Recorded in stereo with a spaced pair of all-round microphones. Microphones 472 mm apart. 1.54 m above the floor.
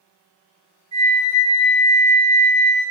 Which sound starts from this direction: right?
A flute, at 0.9 s.